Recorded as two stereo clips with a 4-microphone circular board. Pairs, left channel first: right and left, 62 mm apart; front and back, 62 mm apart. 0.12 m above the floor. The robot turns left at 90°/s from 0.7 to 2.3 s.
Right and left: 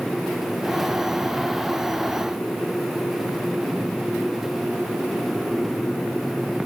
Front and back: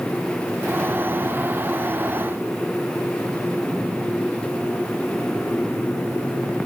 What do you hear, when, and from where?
Only background noise.